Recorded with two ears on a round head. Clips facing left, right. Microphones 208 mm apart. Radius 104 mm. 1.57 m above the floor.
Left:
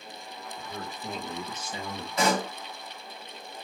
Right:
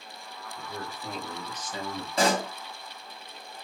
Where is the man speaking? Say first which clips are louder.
Right 1 dB; 5° right (ahead or behind), 2.5 m; by 2.1 s 20° left (ahead or behind), 1.5 m.